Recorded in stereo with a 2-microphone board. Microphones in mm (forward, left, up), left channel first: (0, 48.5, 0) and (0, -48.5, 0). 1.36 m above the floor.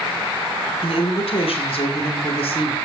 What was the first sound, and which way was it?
A woman speaking, 85° left.